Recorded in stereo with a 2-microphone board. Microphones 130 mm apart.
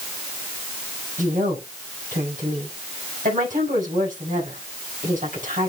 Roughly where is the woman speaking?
Right.